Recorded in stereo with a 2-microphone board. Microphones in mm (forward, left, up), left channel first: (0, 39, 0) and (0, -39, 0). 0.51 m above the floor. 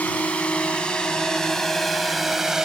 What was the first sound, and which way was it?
A drone, 20° left (ahead or behind).